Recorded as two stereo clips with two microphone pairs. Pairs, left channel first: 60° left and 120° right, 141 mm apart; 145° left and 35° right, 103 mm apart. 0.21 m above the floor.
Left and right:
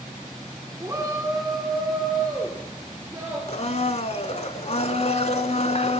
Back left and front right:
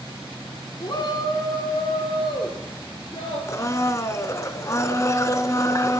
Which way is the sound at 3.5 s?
90° left.